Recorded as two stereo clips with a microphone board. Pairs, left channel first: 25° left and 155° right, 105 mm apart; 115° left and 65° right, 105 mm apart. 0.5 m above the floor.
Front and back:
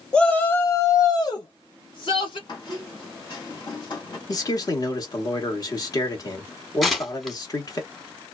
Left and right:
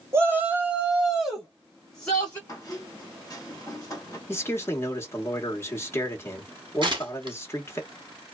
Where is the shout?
45° right, 0.9 m; by 2.4 s 35° left, 1.8 m.